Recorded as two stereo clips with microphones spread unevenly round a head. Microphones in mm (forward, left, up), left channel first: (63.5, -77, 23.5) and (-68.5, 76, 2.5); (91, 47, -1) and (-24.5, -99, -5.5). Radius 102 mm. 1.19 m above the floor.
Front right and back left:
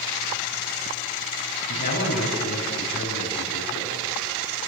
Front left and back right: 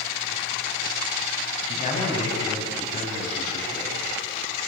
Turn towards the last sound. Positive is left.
turn(degrees=0)